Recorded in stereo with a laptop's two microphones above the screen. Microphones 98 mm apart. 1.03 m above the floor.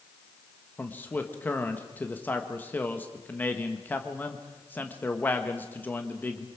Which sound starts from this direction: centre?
A man speaking, at 0.8 s.